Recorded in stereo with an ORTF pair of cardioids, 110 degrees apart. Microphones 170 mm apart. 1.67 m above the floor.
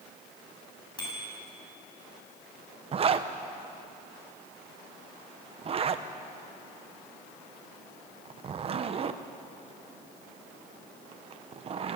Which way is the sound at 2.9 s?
35° right.